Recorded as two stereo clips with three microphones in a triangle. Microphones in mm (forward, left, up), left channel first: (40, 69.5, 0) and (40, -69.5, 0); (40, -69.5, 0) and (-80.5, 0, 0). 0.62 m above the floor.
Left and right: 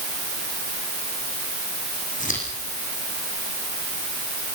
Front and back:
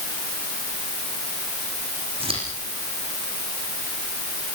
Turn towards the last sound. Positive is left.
turn(degrees=105)